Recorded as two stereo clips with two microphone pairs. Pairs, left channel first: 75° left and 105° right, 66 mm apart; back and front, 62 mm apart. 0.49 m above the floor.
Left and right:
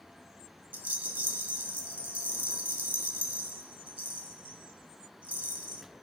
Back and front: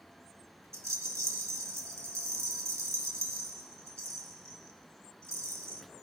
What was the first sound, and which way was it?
A rattle, 40° right.